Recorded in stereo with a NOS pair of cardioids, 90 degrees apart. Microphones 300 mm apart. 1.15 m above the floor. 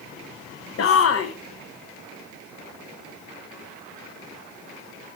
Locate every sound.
0.8 s a shout: 50° left, 0.8 m